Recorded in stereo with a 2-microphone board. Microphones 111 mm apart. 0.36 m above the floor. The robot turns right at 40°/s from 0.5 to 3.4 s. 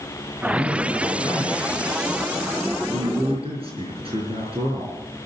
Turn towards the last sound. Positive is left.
turn(degrees=-65)